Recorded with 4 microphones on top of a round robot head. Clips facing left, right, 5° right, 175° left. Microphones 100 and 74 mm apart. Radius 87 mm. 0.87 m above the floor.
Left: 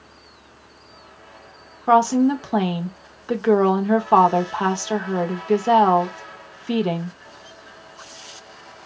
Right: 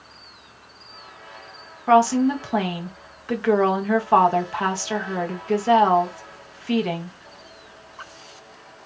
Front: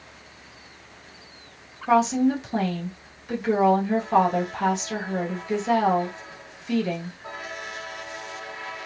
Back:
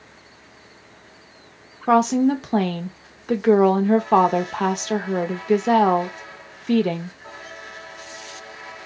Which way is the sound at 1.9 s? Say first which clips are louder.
Left 1 dB, back 3 dB; 160° left.